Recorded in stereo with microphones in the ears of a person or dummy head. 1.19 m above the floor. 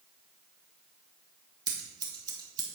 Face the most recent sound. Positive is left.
turn(degrees=-25)  # may be behind; listen again after turning